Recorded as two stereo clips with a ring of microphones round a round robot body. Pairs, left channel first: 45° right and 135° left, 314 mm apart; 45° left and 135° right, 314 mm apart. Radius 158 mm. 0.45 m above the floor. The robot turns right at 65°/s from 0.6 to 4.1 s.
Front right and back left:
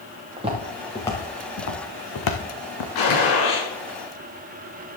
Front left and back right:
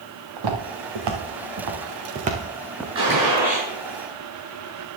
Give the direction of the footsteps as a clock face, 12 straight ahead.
5 o'clock.